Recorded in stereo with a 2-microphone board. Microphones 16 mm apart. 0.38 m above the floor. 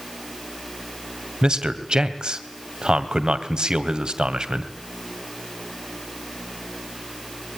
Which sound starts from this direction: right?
A man speaking, at 1.4 s.